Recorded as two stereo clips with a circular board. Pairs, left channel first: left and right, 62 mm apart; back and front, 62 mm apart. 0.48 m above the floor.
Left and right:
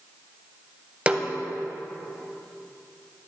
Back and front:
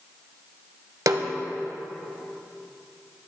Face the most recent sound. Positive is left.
turn(degrees=-20)